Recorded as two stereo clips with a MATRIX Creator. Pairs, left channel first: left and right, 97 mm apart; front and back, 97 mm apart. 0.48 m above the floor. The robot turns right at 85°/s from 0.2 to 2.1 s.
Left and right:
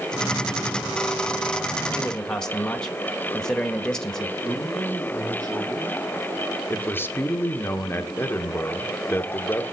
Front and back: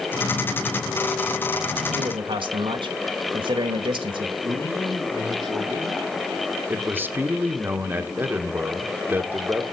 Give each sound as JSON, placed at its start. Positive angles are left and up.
{"t": 1.9, "sound": "a man speaking", "azimuth_deg": 155, "distance_m": 1.4}
{"t": 4.4, "sound": "a man speaking", "azimuth_deg": -135, "distance_m": 5.5}
{"t": 6.7, "sound": "a man speaking", "azimuth_deg": 135, "distance_m": 1.1}